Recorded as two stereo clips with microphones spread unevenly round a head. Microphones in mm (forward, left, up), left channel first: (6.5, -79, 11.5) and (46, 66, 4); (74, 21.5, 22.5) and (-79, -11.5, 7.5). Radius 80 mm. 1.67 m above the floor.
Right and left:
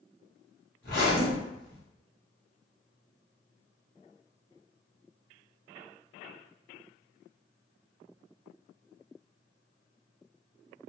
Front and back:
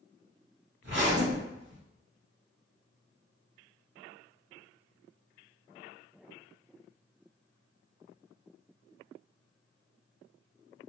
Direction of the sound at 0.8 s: 145° right.